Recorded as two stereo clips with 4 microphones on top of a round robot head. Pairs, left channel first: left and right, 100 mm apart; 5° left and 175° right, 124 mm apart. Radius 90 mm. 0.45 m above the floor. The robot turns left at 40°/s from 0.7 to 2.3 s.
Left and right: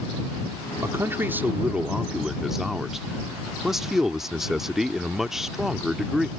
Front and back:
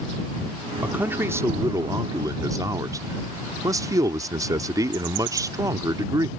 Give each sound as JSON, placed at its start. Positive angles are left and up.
{"t": 0.8, "sound": "a man speaking", "azimuth_deg": -115}